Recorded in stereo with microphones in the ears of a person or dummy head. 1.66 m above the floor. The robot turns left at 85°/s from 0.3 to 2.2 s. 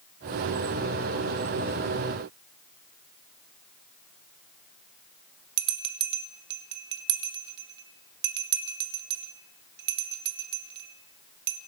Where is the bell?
60° right (ahead or behind), 1.4 m.